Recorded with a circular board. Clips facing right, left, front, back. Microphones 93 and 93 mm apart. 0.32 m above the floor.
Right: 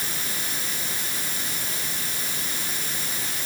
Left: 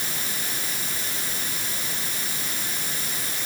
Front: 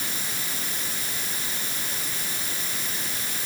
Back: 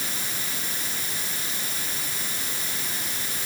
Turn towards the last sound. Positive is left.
No sound to turn to.